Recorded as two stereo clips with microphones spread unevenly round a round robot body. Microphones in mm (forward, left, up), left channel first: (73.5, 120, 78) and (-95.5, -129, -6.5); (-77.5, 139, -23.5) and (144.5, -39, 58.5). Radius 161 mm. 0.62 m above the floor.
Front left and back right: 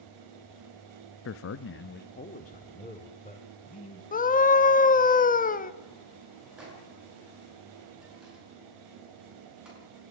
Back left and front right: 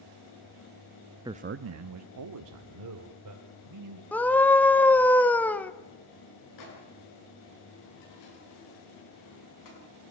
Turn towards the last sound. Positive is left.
turn(degrees=150)